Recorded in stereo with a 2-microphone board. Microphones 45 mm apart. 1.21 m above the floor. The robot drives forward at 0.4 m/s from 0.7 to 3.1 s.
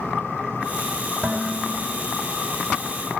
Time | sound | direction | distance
1.2 | dishes clattering | 40° right (ahead or behind) | 4 m